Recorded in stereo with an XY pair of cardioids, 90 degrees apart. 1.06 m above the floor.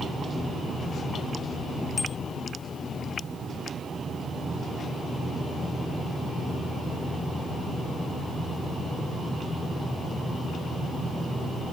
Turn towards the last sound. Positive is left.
turn(degrees=45)